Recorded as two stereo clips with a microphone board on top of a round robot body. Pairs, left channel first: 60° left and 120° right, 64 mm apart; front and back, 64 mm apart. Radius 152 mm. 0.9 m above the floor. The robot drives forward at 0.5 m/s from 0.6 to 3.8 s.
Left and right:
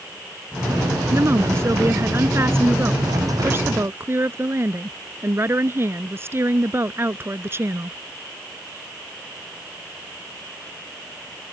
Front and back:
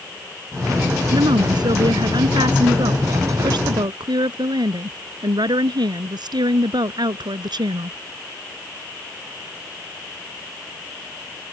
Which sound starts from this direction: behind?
A woman speaking, at 1.1 s.